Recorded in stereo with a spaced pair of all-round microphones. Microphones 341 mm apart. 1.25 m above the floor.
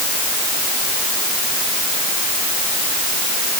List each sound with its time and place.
Only background noise.